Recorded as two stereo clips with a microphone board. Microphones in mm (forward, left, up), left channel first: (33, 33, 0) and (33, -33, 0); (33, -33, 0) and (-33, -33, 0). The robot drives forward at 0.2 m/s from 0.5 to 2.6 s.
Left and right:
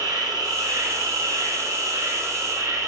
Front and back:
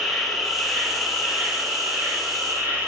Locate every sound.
0.0 s an insect: 95° right, 0.8 m; by 2.9 s 120° right, 1.0 m